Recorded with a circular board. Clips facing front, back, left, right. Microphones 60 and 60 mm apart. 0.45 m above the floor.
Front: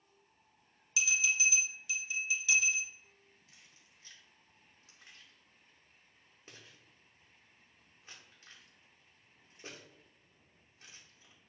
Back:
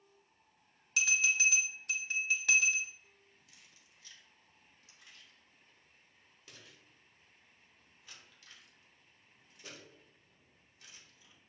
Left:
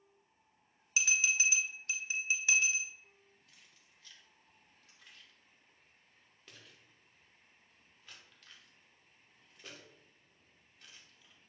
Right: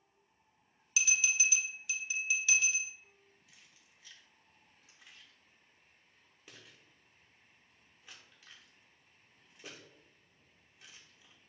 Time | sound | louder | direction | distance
1.0 | a bell | back 2 dB, left 1 dB | 145° left | 0.8 m
3.5 | keys jangling | even, right 1 dB | 20° right | 0.9 m